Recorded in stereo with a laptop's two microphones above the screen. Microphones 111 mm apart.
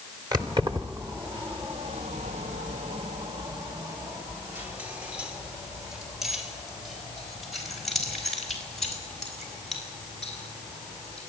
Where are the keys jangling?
40° right (ahead or behind), 2.5 m; by 11.2 s 5° left (ahead or behind), 8 m.